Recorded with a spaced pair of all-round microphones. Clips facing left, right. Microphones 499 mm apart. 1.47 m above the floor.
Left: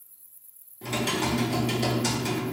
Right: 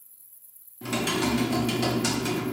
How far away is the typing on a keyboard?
About 0.6 m.